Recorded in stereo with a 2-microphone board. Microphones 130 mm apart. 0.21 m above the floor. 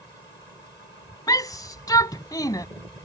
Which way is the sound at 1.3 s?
30° left (ahead or behind).